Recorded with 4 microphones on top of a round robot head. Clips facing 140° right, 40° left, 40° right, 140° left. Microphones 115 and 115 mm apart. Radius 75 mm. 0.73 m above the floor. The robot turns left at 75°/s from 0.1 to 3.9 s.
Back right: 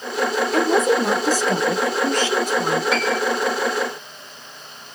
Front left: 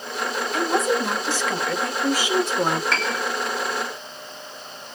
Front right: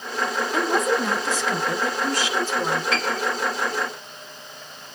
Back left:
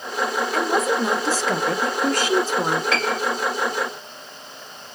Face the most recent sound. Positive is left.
turn(degrees=65)